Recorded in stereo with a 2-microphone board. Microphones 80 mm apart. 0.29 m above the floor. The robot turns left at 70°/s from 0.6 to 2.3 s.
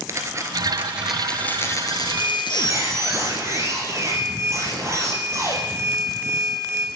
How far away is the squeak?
About 3.5 m.